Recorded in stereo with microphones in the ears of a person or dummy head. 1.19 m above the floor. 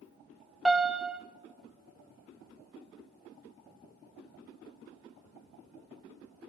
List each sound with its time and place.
0.7 s a piano: centre (ahead or behind), 0.5 m